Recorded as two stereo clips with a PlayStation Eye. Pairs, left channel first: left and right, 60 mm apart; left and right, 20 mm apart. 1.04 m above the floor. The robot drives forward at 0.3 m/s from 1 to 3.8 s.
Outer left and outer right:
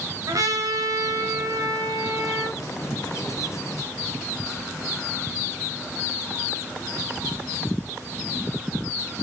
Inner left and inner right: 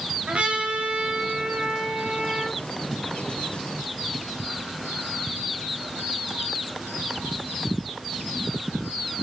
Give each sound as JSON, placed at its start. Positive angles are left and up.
{"t": 0.3, "sound": "a trumpet", "side_deg": -70, "distance_m": 6.0}